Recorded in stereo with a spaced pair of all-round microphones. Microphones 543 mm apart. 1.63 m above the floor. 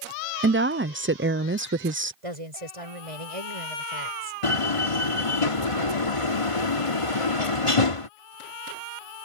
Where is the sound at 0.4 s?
20° right (ahead or behind).